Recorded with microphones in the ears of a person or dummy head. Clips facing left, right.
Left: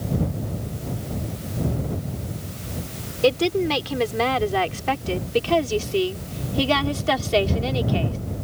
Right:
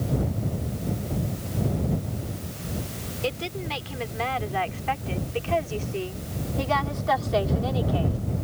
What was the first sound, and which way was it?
A woman speaking, 70° left (ahead or behind).